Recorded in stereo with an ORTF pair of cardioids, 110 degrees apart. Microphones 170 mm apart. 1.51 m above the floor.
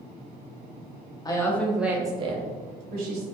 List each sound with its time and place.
1.2 s a woman speaking: 25° left, 0.8 m; by 3.2 s 70° right, 1.1 m